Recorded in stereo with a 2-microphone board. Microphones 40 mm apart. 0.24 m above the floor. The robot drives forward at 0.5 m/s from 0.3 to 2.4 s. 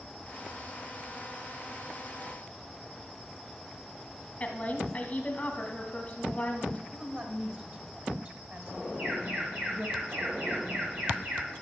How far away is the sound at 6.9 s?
About 1.4 m.